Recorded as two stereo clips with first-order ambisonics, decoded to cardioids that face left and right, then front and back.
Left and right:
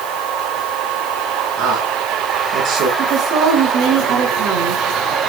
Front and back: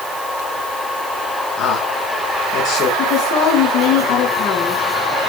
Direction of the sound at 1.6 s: 45° right.